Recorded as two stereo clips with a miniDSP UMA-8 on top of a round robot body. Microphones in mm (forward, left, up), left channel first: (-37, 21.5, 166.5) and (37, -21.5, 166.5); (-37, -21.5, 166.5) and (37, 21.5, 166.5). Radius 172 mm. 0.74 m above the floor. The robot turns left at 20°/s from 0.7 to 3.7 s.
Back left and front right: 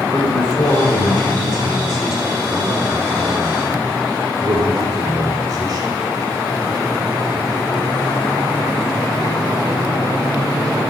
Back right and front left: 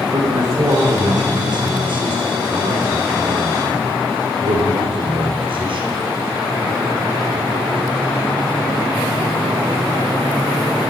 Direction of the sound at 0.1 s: 80° left.